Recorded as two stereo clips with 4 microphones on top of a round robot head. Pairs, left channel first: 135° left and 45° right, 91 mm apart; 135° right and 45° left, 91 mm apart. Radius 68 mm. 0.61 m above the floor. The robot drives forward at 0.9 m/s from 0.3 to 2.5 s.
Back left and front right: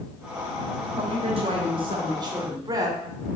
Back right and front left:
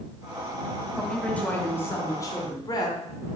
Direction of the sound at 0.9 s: 50° right.